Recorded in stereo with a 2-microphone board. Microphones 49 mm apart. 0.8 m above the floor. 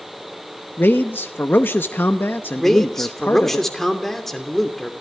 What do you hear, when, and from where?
0.8 s a man speaking: 45° left (ahead or behind), 0.8 m
2.6 s a man speaking: 5° left (ahead or behind), 2.5 m